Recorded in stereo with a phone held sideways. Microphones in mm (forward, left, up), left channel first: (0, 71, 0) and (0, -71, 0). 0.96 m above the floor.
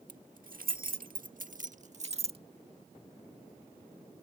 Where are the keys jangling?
70° right (ahead or behind); by 2.4 s 40° right (ahead or behind).